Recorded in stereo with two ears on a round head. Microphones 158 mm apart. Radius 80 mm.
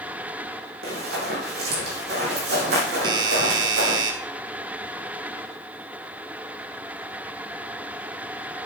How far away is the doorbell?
About 0.8 m.